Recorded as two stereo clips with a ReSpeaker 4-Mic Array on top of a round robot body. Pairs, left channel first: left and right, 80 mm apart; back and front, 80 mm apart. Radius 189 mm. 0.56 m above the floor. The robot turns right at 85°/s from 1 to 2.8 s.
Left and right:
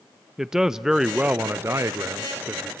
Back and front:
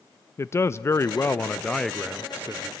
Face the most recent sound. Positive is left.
turn(degrees=-15)